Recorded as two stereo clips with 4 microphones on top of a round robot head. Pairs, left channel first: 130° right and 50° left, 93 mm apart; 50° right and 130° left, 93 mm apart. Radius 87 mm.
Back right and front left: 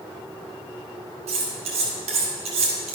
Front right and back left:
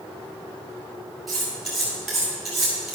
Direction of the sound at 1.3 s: 40° left.